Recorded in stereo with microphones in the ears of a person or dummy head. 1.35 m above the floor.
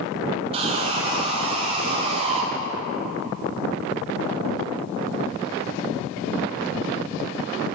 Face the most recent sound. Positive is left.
turn(degrees=-30)  # may be behind; listen again after turning